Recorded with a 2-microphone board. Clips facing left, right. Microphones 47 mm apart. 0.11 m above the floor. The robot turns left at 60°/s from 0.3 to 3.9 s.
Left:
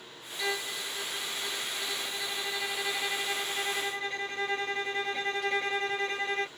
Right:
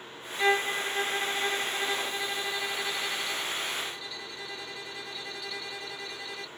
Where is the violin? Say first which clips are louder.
Right 8 dB; 45° right; by 6.5 s 105° left.